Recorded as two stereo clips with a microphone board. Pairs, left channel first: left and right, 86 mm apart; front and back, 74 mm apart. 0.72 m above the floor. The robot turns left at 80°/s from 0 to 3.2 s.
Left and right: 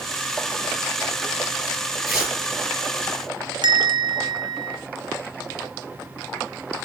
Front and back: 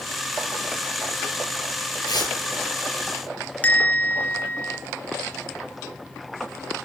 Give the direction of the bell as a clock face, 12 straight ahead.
2 o'clock.